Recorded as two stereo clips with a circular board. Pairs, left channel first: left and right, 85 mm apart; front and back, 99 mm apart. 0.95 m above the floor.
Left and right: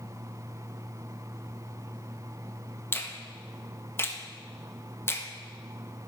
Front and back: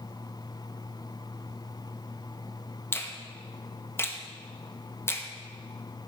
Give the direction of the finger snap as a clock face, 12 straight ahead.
10 o'clock.